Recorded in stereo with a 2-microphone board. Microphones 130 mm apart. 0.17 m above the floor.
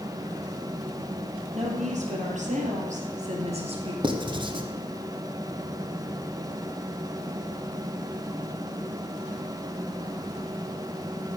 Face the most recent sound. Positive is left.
turn(degrees=-40)  # may be behind; listen again after turning